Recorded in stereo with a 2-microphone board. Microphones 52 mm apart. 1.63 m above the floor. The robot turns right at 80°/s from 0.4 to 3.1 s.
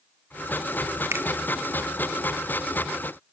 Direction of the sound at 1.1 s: 60° right (ahead or behind).